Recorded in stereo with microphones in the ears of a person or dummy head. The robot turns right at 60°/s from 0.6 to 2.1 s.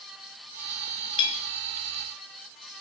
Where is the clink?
30° left (ahead or behind), 3 m; by 1.4 s 45° left (ahead or behind), 3 m.